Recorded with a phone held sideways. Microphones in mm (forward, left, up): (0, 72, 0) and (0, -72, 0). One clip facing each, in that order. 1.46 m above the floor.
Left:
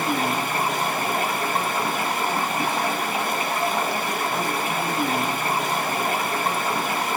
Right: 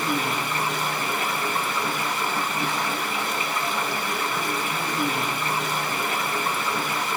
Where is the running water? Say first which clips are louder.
Left 2 dB; 45° left (ahead or behind), 1.5 m.